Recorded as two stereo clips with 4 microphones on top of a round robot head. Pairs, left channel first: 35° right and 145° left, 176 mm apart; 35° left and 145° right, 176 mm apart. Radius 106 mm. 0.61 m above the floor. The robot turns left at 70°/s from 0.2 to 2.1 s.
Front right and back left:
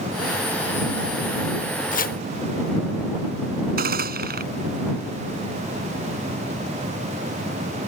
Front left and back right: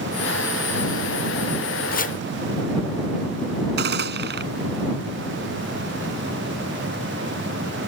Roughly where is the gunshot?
Behind.